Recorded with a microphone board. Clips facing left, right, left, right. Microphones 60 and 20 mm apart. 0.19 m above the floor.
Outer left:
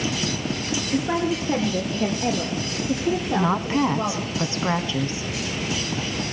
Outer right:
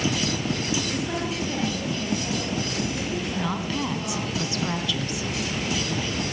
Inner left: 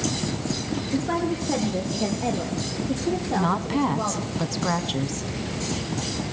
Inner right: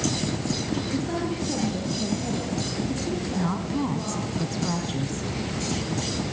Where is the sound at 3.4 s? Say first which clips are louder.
Outer left 8 dB, inner left 5 dB; 35° left (ahead or behind), 1.3 m.